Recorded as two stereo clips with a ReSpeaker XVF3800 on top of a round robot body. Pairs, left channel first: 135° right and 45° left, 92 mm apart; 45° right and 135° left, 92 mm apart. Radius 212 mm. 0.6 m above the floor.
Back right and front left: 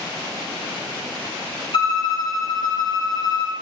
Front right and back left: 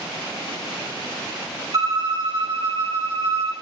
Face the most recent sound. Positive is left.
turn(degrees=-175)